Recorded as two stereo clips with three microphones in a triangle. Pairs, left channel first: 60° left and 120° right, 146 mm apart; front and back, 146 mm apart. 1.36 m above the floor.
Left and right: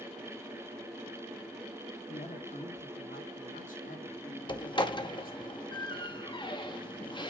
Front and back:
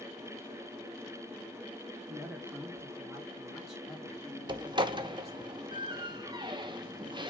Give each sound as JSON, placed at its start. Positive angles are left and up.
{"t": 2.1, "sound": "a woman speaking", "azimuth_deg": 105, "distance_m": 2.0}
{"t": 4.5, "sound": "a door slam", "azimuth_deg": 120, "distance_m": 1.0}